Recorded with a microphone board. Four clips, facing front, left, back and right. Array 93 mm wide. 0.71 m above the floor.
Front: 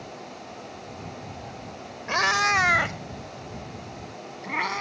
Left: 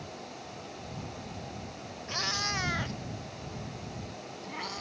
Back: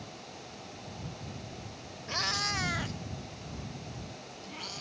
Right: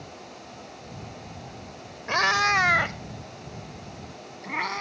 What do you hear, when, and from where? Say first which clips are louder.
2.1 s a cat meowing: right 13 dB, front 12 dB; 50° right; by 4.8 s 30° right